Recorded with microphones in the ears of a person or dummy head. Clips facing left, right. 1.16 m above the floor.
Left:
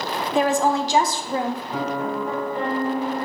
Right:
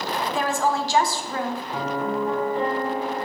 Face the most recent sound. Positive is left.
turn(degrees=65)  # may be behind; listen again after turning